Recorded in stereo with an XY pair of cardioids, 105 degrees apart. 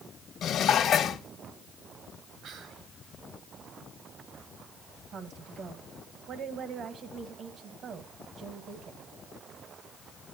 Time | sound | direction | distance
0.4 | dishes clattering | 65° left | 1.4 m
2.4 | whispering | 65° right | 1.6 m
5.1 | a woman speaking | 60° right | 1.3 m